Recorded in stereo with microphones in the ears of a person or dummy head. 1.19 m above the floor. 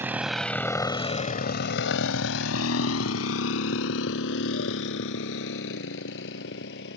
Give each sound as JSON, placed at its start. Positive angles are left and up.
{"t": 0.0, "sound": "a motorcycle", "side_deg": -10}